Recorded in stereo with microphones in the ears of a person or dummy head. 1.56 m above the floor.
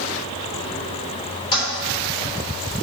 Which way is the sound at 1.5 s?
30° left (ahead or behind).